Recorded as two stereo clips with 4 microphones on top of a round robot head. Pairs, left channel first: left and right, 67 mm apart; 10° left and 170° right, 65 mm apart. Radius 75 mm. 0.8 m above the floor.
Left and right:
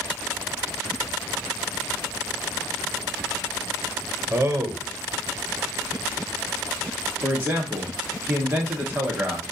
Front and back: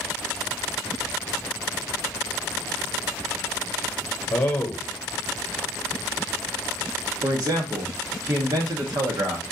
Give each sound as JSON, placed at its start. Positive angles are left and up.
{"t": 4.3, "sound": "a man speaking", "azimuth_deg": -45, "distance_m": 1.0}
{"t": 7.2, "sound": "a man speaking", "azimuth_deg": -150, "distance_m": 1.2}